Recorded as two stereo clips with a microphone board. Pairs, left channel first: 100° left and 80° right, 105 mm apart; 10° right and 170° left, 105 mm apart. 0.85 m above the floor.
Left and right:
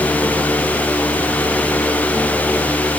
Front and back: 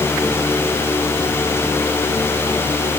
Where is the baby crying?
No baby crying in this recording.